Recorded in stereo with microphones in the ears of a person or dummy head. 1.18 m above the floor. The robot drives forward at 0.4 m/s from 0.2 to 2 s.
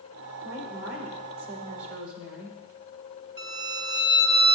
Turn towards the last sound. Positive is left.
turn(degrees=-65)  # may be behind; listen again after turning